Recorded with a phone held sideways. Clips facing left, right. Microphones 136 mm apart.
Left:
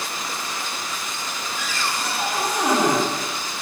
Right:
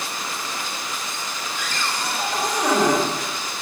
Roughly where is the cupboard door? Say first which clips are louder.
Even; centre.